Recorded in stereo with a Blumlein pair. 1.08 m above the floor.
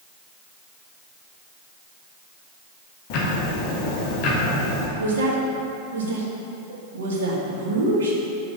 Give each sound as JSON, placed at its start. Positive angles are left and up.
{"t": 3.1, "sound": "ticking", "azimuth_deg": 45, "distance_m": 1.5}
{"t": 5.0, "sound": "a woman speaking", "azimuth_deg": -65, "distance_m": 1.6}